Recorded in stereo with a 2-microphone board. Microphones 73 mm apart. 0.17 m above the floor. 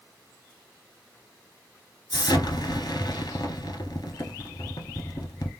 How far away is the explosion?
About 0.7 m.